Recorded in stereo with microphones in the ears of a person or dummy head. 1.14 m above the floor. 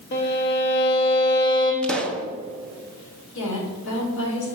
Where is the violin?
50° left (ahead or behind), 1.1 m.